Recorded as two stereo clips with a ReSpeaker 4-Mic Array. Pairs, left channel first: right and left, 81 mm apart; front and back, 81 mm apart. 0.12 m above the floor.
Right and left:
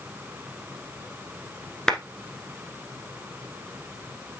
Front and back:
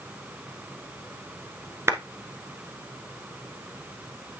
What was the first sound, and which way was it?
A clap, 165° right.